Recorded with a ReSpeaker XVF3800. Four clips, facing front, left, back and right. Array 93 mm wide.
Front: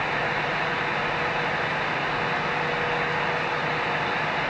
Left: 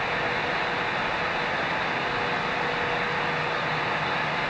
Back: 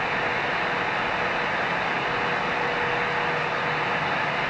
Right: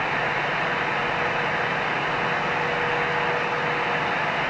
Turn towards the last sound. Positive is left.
No sound to turn to.